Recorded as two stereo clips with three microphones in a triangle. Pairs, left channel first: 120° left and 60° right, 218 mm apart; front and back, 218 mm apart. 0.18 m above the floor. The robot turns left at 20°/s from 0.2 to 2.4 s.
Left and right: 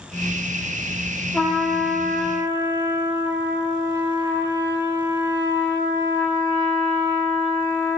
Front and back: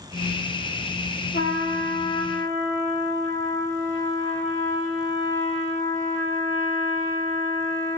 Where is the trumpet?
35° left, 3.5 m; by 8.0 s 10° left, 3.5 m.